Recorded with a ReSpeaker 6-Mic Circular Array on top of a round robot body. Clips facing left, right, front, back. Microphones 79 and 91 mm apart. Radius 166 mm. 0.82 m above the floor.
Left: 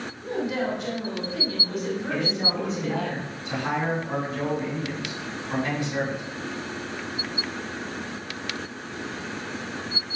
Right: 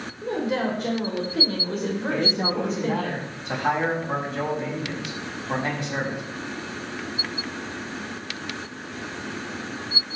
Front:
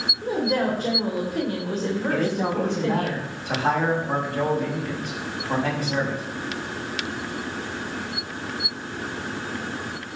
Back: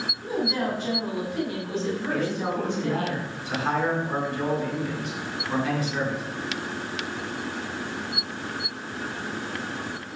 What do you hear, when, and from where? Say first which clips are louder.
0.2 s a woman speaking: right 2 dB, front 4 dB; 45° right, 3.5 m
2.1 s a man speaking: right 4 dB, front 4 dB; 45° right, 5.5 m